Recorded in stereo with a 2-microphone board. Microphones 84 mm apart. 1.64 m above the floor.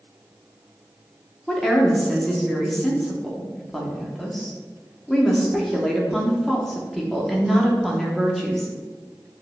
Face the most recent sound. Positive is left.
turn(degrees=5)  # may be behind; listen again after turning